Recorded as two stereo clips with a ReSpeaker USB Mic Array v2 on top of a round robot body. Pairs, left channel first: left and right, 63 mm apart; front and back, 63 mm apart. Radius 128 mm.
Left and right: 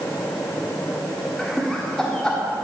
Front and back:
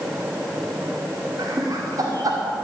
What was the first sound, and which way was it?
Laughter, 170° left.